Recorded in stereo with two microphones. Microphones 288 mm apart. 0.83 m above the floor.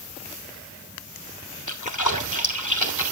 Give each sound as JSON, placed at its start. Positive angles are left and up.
{"t": 1.7, "sound": "a splash", "side_deg": 70, "distance_m": 3.0}